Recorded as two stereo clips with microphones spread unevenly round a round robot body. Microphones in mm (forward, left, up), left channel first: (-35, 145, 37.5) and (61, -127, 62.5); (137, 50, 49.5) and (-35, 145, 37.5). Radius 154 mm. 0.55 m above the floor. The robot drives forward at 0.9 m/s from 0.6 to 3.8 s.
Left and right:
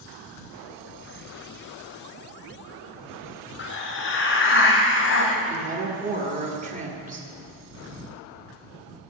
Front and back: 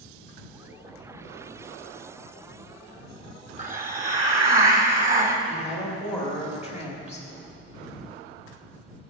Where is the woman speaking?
130° right, 1.5 m.